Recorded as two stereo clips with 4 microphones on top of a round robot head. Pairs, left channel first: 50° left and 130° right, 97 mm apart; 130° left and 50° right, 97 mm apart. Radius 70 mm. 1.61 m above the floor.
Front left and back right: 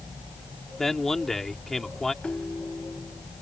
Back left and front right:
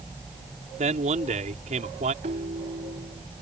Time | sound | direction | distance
0.8 | a man speaking | 40° right | ?
2.2 | a ringtone | 30° right | ?